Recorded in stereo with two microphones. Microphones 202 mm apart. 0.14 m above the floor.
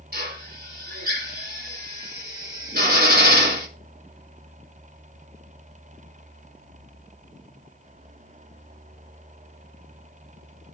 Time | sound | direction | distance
0.1 | a drill | 50° right (ahead or behind) | 2.5 m